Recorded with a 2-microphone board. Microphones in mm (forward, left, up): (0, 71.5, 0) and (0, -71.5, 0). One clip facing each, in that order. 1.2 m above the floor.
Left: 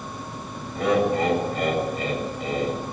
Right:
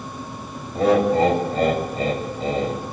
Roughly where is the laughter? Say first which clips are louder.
Right 4 dB; right.